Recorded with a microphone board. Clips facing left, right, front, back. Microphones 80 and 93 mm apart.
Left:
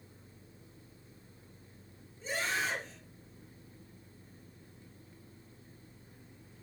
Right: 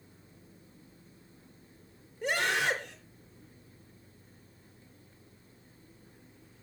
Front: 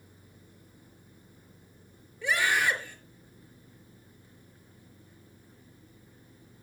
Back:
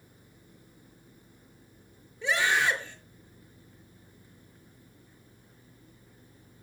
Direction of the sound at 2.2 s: 110° right.